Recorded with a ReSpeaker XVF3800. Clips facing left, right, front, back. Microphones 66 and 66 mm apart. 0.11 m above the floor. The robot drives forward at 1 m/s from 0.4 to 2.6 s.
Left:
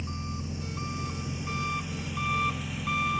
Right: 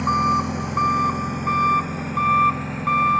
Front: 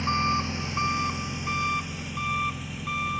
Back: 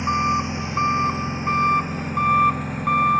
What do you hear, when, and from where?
0.0 s an engine running: 110° right; by 3.2 s 135° right